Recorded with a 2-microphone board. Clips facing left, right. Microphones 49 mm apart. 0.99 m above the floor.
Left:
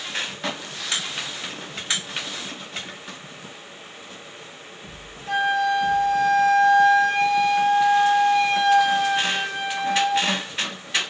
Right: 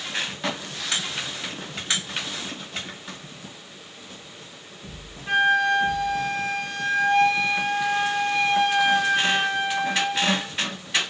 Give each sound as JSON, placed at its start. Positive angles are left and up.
{"t": 5.3, "sound": "a flute", "side_deg": -50, "distance_m": 1.1}